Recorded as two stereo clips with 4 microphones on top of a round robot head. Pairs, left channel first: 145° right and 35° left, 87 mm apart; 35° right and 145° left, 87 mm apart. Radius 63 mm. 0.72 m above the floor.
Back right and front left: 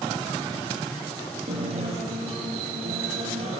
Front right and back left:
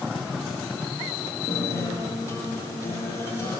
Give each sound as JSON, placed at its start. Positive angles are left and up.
{"t": 1.5, "sound": "a guitar", "azimuth_deg": 30, "distance_m": 8.0}